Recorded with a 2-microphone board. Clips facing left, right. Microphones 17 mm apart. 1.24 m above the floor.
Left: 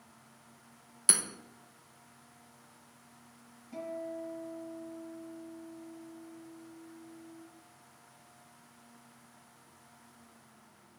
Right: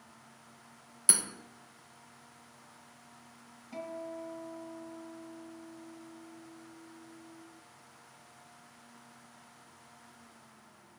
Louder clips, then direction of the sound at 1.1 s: Even; 10° left (ahead or behind).